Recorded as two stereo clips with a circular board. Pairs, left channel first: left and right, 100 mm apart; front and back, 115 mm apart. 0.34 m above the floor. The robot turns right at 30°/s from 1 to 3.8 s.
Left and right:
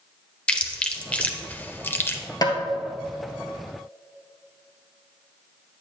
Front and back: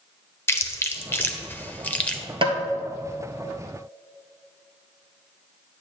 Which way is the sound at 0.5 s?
30° left.